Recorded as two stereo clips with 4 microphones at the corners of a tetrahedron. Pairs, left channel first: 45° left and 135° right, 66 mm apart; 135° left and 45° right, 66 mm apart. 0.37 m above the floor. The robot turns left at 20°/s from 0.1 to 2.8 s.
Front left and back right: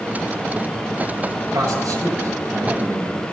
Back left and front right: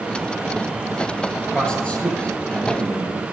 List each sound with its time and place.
1.5 s a man speaking: 150° right, 6.5 m; by 3.3 s 175° right, 6.5 m